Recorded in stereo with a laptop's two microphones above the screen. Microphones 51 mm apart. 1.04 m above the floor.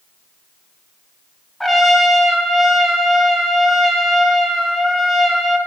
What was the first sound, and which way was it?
A trumpet, centre (ahead or behind).